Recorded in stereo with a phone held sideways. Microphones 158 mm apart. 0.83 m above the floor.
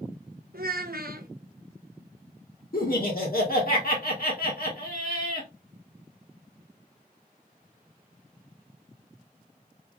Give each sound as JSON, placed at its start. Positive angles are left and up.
{"t": 0.5, "sound": "a child speaking", "side_deg": -70, "distance_m": 0.7}
{"t": 2.7, "sound": "laughter", "side_deg": 70, "distance_m": 1.8}